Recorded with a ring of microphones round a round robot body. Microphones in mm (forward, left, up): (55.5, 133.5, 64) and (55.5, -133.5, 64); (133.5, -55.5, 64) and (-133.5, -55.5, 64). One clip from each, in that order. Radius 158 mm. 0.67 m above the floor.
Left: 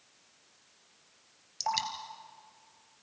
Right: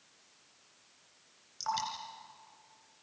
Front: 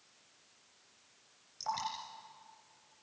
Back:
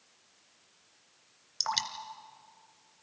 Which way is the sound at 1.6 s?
165° left.